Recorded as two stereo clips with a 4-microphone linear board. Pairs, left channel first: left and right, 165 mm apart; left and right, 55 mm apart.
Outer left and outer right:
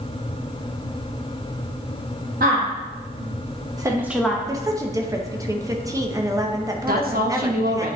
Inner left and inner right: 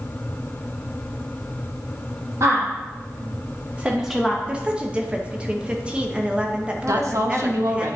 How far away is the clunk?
I don't hear a clunk.